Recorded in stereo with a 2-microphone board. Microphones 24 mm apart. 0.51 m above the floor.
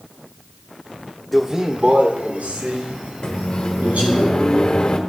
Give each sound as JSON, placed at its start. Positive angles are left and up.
{"t": 1.3, "sound": "a man speaking", "side_deg": -5, "distance_m": 0.8}
{"t": 3.2, "sound": "a microwave", "side_deg": 40, "distance_m": 1.3}